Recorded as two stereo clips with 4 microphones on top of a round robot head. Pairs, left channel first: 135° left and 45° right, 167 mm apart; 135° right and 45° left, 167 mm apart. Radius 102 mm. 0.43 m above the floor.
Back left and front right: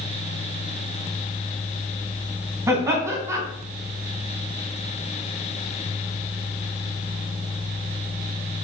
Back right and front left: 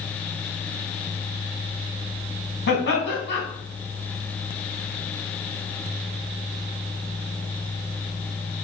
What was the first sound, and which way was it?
Laughter, 115° right.